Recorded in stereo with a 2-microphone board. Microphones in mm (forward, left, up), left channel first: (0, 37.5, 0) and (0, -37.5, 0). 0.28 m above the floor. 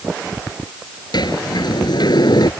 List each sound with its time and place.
1.1 s a sliding door: 75° left (ahead or behind)